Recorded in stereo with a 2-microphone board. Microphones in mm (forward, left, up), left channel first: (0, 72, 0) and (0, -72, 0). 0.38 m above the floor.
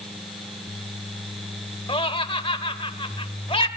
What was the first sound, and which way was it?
Laughter, 40° left (ahead or behind).